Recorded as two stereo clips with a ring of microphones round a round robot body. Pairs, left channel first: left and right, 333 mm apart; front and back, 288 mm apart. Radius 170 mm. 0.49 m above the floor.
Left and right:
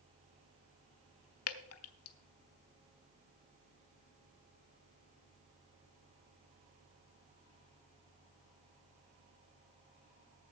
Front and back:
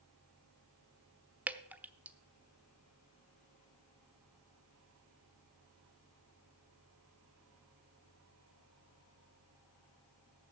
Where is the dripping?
95° left, 0.9 m.